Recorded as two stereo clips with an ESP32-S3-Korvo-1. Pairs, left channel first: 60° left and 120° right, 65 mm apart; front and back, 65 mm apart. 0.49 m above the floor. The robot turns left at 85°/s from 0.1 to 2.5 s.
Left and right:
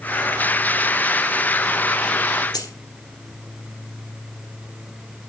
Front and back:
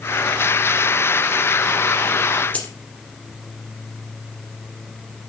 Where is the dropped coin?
65° left, 3.5 m.